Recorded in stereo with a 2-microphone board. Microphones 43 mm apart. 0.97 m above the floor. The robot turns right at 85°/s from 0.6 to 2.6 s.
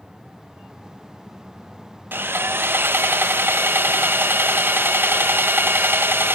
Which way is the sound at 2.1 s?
120° right.